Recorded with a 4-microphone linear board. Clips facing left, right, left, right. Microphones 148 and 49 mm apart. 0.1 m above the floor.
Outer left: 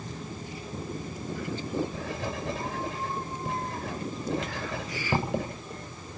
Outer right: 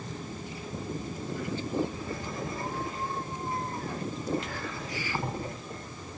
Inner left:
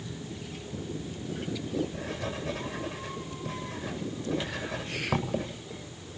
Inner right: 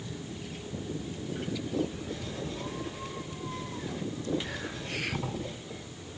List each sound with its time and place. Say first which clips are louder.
1.9 s writing: outer left 2 dB, inner left 2 dB; 85° left, 9 m